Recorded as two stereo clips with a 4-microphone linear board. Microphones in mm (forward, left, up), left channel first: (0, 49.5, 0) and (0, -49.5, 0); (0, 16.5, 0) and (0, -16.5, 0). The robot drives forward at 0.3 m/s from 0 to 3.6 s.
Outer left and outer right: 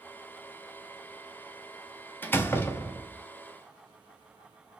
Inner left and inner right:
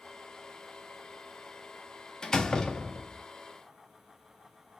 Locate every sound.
2.2 s a door slam: 20° left (ahead or behind), 0.5 m; by 3.2 s 25° left (ahead or behind), 0.5 m